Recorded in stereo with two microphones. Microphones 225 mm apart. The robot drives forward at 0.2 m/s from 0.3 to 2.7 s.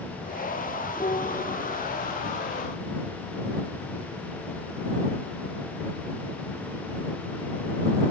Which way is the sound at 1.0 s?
30° left (ahead or behind).